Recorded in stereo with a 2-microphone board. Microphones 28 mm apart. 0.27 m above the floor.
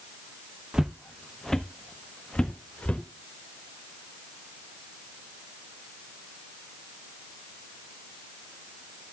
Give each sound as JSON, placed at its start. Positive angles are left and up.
{"t": 0.7, "sound": "footsteps", "side_deg": -25, "distance_m": 1.0}